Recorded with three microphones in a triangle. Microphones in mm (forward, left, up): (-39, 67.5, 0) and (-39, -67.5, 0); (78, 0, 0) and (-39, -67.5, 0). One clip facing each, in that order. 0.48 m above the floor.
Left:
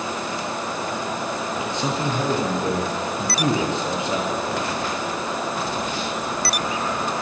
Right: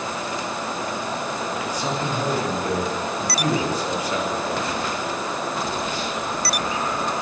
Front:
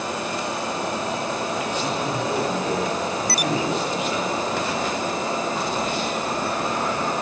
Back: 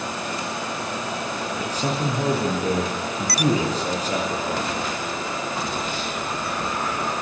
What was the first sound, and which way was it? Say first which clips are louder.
A man speaking: left 2 dB, even; 155° left.